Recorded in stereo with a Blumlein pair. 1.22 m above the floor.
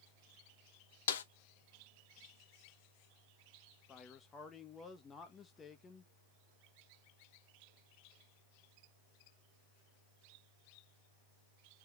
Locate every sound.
1.1 s a snare drum: 60° left, 0.5 m
3.9 s a man speaking: 20° left, 1.0 m